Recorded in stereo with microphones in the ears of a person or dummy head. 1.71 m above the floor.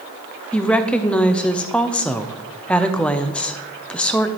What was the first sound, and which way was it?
A woman speaking, 5° left (ahead or behind).